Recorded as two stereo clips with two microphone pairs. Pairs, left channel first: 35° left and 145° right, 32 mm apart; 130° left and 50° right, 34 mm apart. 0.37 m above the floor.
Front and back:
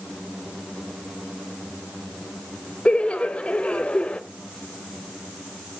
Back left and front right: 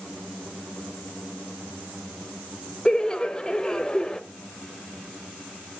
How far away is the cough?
I don't hear a cough.